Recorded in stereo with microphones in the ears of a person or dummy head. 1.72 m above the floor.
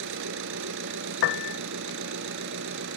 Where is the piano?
60° left (ahead or behind).